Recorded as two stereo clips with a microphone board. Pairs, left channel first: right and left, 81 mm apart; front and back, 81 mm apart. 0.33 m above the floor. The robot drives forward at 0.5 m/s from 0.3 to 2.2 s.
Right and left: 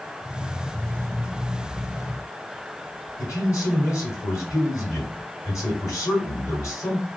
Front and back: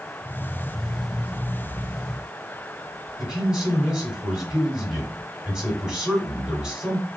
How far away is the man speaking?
About 1.9 m.